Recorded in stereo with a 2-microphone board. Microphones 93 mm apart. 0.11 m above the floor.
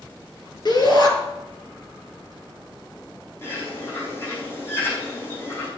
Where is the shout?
50° left (ahead or behind), 3 m.